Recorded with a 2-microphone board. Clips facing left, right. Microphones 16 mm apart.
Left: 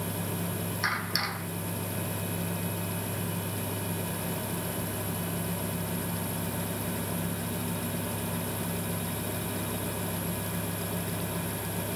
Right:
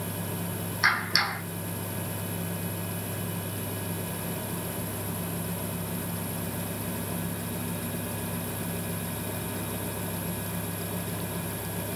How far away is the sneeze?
I don't hear a sneeze.